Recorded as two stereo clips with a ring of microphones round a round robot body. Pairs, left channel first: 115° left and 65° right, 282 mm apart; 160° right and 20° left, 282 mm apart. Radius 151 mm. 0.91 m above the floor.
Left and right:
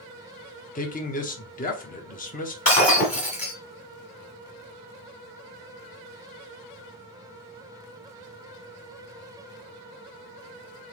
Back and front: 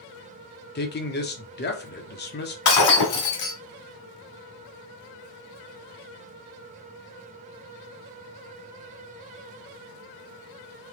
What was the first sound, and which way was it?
A man speaking, 165° left.